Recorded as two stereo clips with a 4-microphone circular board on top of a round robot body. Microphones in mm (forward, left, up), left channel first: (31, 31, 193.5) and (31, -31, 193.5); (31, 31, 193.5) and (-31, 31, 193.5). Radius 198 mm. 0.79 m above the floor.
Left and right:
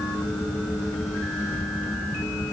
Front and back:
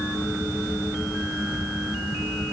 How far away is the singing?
No singing in this recording.